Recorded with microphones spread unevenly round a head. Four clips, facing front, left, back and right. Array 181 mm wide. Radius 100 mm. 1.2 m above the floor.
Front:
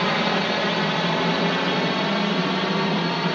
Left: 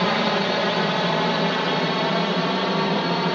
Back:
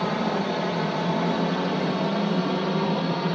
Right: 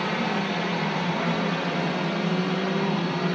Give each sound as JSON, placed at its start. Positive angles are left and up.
{"t": 0.0, "sound": "a drone", "azimuth_deg": 65}